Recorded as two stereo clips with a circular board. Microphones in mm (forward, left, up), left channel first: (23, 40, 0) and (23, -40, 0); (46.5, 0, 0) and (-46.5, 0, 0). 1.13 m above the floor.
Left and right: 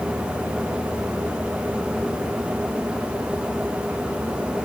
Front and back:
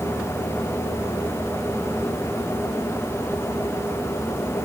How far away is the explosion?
No explosion in this recording.